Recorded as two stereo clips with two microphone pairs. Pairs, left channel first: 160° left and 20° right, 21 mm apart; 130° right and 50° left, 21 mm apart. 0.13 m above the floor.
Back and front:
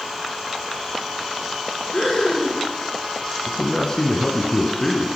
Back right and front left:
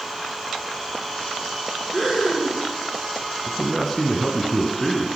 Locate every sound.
1.9 s breathing: 130° left, 5.5 m
3.5 s a man speaking: 145° left, 1.5 m